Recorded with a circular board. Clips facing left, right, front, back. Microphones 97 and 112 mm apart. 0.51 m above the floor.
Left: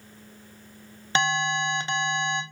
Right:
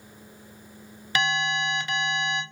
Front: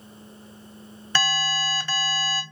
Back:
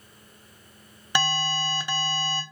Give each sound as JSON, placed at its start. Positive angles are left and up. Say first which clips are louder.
{"t": 1.1, "sound": "an alarm", "louder": "left 1 dB, even", "azimuth_deg": 120, "distance_m": 0.8}